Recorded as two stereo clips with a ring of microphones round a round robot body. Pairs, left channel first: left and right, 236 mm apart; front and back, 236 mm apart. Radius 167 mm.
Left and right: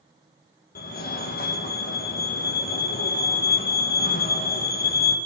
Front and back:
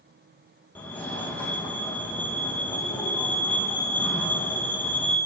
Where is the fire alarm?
80° left, 1.5 m.